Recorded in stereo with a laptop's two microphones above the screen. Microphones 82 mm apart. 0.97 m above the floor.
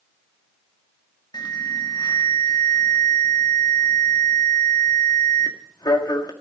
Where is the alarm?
55° left (ahead or behind), 1.6 m.